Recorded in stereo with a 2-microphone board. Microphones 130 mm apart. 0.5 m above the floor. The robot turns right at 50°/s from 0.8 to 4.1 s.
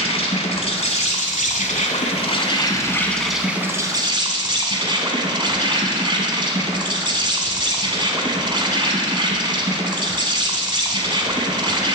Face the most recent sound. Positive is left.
turn(degrees=-140)